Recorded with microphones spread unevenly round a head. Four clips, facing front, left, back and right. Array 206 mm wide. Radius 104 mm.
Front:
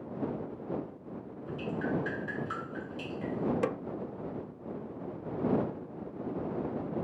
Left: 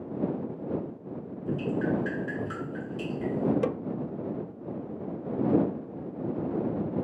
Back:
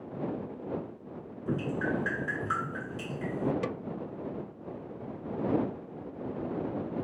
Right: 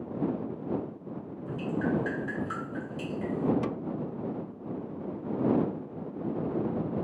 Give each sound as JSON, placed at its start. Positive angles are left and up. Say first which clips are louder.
{"t": 1.5, "sound": "dripping", "louder": "left 2 dB, back 3 dB", "azimuth_deg": 135}
{"t": 3.6, "sound": "a snare drum", "louder": "left 4 dB, front 3 dB", "azimuth_deg": 50}